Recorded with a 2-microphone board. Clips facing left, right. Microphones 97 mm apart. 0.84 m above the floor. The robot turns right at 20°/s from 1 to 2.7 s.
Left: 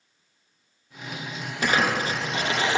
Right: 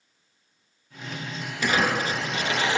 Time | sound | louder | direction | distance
1.6 | crumpling | even | 45° left (ahead or behind) | 0.5 m